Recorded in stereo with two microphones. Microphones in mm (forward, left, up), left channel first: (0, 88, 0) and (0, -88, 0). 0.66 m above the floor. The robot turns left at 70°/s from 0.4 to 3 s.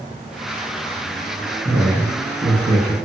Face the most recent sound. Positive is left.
turn(degrees=-140)